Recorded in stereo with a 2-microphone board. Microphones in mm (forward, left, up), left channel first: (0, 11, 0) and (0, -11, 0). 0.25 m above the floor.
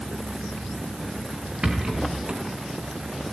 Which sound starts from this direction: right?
A rattle, at 1.6 s.